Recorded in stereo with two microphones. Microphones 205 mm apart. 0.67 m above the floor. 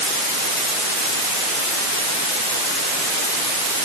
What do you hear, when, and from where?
Only background noise.